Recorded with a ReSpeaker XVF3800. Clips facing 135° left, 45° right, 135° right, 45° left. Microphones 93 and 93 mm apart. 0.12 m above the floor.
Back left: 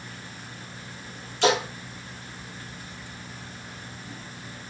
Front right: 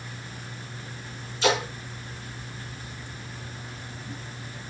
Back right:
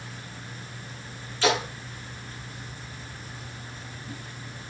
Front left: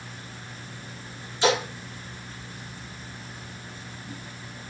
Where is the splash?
120° left, 8 m.